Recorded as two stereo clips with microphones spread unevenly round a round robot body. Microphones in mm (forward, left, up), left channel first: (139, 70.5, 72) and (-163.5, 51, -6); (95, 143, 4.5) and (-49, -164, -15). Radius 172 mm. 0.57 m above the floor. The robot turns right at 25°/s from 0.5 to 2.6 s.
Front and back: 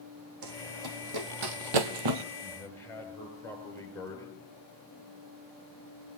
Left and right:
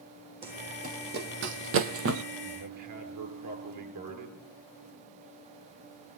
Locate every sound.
0.4 s running footsteps: 170° left, 2.5 m; by 2.2 s 170° right, 1.0 m
2.4 s a man speaking: 85° right, 8 m; by 4.4 s 80° right, 8 m